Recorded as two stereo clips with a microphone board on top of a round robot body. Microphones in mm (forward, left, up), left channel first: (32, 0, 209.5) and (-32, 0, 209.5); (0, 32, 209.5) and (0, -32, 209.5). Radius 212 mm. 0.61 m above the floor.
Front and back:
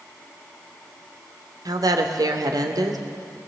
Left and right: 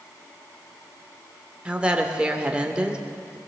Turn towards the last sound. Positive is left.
turn(degrees=-165)